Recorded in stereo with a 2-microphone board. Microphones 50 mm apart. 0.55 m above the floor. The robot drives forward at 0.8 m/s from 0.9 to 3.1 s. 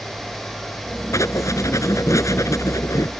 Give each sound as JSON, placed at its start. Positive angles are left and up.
{"t": 1.1, "sound": "writing", "side_deg": 80}